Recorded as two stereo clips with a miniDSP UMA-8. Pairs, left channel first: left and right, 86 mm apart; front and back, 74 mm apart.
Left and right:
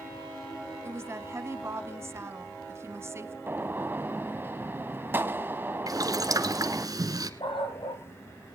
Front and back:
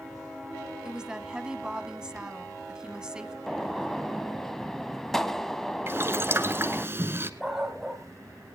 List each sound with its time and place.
0.8 s a woman speaking: 110° right, 1.3 m
3.5 s a gunshot: 80° right, 0.8 m
5.9 s boiling: 125° right, 1.1 m
7.4 s a dog barking: 90° left, 2.5 m